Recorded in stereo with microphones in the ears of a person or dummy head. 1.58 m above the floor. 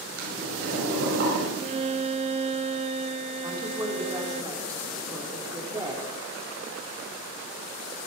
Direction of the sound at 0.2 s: 70° right (ahead or behind).